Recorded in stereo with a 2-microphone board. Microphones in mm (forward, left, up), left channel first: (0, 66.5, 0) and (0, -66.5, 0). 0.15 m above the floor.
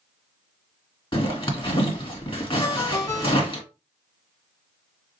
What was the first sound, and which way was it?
A zipper, 40° left (ahead or behind).